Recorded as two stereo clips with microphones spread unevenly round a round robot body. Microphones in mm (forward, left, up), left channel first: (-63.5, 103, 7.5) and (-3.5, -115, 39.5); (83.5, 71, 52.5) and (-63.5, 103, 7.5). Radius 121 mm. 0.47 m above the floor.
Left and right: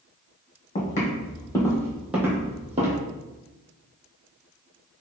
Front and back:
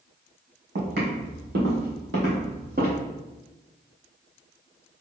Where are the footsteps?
165° left, 1.2 m; by 3.0 s 125° right, 1.0 m.